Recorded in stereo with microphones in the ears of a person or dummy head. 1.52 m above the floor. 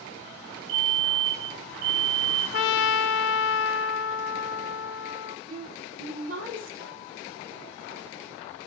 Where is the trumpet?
70° left (ahead or behind), 0.8 m.